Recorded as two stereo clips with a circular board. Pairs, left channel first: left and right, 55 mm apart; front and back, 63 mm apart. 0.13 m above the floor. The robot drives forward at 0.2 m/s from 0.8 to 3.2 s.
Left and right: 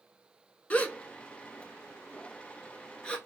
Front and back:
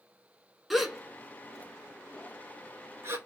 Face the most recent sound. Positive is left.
turn(degrees=155)